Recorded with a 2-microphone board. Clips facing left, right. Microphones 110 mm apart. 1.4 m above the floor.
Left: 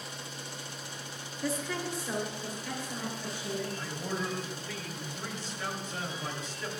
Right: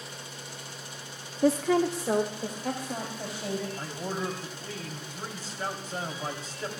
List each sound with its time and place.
1.4 s a woman speaking: 50° right (ahead or behind), 0.6 m; by 3.7 s 85° right, 3.5 m
3.8 s a man speaking: 40° right (ahead or behind), 3 m